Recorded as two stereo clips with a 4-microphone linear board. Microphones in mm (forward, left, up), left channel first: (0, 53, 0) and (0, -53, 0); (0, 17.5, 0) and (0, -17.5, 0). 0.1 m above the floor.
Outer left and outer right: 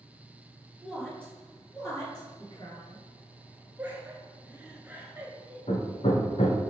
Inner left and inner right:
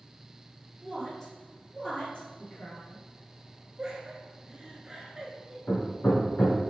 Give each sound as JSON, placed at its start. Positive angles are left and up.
{"t": 0.8, "sound": "a woman speaking", "side_deg": 0, "distance_m": 1.8}
{"t": 3.8, "sound": "laughter", "side_deg": -15, "distance_m": 1.1}
{"t": 5.7, "sound": "hammering", "side_deg": 70, "distance_m": 1.2}